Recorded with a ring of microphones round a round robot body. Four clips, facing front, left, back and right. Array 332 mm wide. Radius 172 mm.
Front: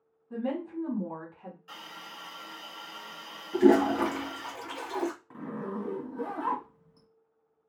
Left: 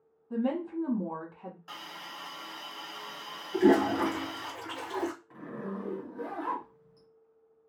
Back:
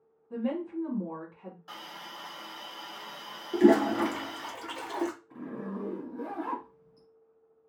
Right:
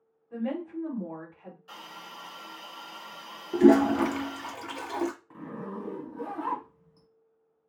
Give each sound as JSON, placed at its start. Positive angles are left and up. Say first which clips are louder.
{"t": 0.3, "sound": "a woman speaking", "louder": "left 2 dB, back 1 dB", "azimuth_deg": 85, "distance_m": 1.2}
{"t": 1.7, "sound": "a hiss", "louder": "even, back 2 dB", "azimuth_deg": 145, "distance_m": 1.2}
{"t": 3.5, "sound": "a toilet flushing", "louder": "right 4 dB, even", "azimuth_deg": -115, "distance_m": 1.1}
{"t": 5.3, "sound": "a zipper", "louder": "even, front 2 dB", "azimuth_deg": -15, "distance_m": 1.6}